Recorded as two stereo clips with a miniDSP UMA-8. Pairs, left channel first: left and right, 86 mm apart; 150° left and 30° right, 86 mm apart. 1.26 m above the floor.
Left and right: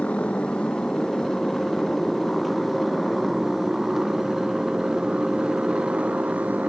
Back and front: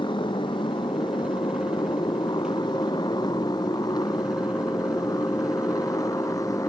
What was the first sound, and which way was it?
A motorcycle, 165° left.